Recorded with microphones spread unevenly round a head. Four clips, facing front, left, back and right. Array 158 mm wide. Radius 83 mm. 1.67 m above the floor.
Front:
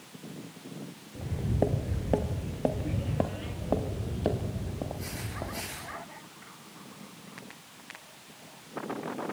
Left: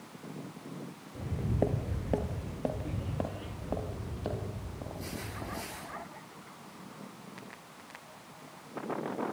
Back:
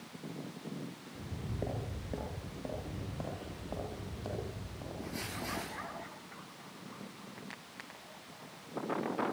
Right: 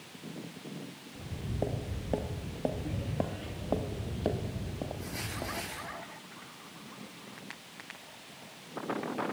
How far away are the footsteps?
About 1.9 m.